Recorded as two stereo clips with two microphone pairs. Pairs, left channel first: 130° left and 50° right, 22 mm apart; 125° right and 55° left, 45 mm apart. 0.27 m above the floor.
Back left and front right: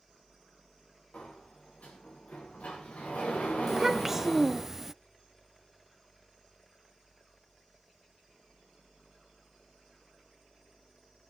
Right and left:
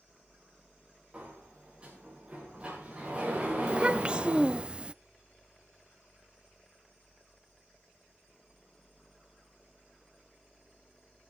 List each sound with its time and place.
1.1 s a sliding door: 125° left, 4.5 m
3.7 s a child speaking: 15° left, 0.5 m